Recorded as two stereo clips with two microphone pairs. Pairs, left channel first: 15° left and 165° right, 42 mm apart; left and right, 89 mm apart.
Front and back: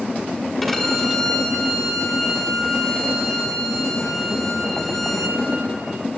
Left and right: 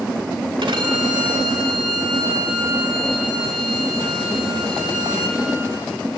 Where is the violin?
75° right, 2.5 m.